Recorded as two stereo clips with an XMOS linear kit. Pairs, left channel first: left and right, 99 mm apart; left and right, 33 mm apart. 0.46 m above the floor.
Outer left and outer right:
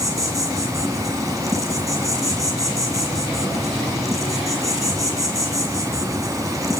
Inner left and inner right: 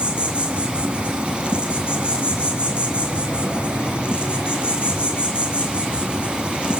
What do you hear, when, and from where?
0.0 s an insect: 35° right (ahead or behind), 1.7 m